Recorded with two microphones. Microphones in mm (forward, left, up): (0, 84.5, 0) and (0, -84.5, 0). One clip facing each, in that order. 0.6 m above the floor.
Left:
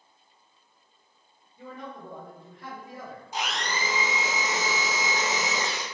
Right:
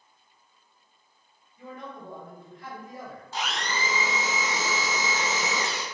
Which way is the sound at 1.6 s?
30° left (ahead or behind).